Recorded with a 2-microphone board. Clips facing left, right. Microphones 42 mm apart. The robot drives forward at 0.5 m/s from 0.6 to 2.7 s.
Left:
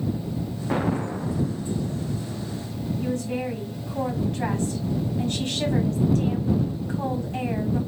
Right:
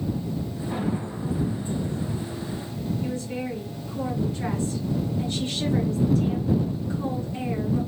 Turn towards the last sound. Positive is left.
turn(degrees=70)  # may be behind; listen again after turning